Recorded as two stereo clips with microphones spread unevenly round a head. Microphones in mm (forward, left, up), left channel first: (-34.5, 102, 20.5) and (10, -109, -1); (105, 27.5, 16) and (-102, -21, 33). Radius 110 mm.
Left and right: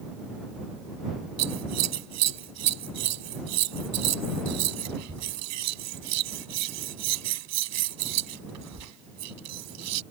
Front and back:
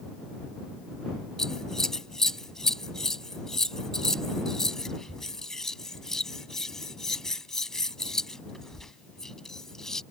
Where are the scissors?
75° right.